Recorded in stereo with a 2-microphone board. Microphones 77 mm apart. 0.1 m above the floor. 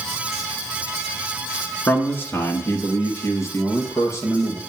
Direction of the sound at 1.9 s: 25° left (ahead or behind).